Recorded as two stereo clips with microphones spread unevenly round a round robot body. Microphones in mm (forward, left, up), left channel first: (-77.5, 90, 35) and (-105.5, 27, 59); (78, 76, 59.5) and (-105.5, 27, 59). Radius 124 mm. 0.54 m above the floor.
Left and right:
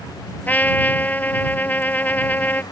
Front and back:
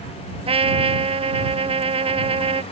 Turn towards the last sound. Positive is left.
turn(degrees=135)